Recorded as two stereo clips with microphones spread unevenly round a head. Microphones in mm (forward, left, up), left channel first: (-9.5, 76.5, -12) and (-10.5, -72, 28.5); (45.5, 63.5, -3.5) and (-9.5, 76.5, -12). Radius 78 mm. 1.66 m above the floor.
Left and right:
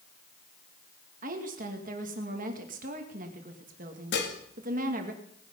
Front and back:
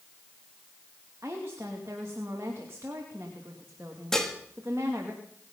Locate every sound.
1.2 s a woman speaking: 120° right, 2 m
4.1 s dishes clattering: 65° left, 2 m